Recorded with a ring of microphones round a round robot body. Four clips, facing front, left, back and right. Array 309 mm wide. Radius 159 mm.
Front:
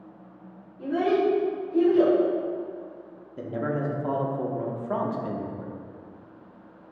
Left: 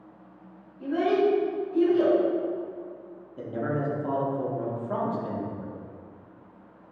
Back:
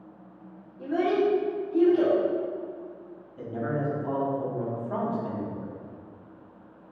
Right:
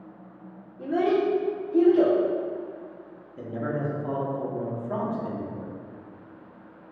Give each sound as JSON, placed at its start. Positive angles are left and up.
{"t": 0.8, "sound": "a child speaking", "azimuth_deg": -100, "distance_m": 1.4}
{"t": 3.4, "sound": "a man speaking", "azimuth_deg": 5, "distance_m": 0.9}